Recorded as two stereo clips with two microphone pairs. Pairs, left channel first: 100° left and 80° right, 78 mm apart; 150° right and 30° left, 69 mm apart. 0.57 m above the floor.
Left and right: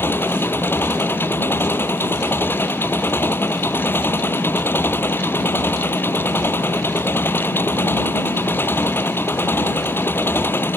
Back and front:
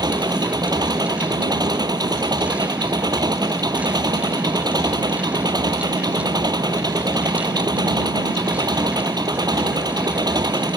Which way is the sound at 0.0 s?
40° left.